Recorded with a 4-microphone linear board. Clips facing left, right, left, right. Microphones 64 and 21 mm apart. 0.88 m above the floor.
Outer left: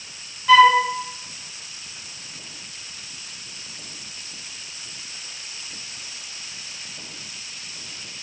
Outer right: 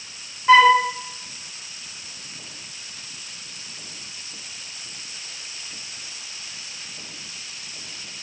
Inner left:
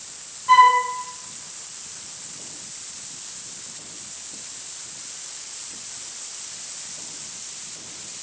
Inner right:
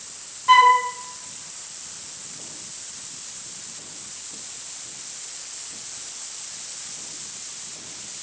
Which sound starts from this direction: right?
A flute, at 0.5 s.